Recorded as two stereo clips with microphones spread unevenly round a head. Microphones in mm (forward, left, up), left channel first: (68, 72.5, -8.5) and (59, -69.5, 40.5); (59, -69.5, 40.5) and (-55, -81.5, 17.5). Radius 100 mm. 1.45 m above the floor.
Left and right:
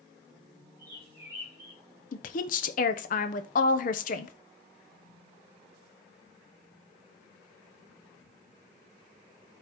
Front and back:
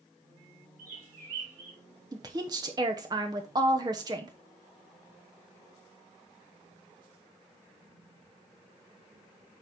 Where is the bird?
165° right, 5 m.